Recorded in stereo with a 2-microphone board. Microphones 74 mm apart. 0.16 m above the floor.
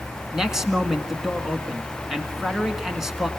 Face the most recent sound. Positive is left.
turn(degrees=-5)  # may be behind; listen again after turning